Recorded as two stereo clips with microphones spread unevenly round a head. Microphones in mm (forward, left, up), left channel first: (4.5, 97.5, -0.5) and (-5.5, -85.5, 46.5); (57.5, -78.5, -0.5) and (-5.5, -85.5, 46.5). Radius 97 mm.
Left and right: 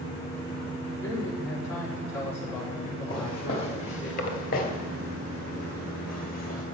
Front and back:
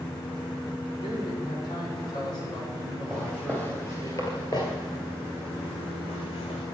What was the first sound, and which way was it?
A man speaking, 5° left.